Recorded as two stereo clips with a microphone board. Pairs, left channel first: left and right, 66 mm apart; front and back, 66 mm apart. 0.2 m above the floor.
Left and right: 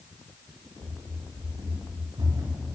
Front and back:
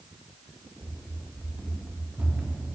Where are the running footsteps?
95° right, 5.5 m; by 2.6 s 105° right, 6.5 m.